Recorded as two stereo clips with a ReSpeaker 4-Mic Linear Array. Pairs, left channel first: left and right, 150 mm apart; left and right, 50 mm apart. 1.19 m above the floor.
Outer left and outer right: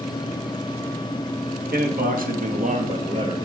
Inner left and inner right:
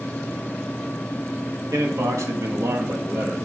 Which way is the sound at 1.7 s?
75° right (ahead or behind).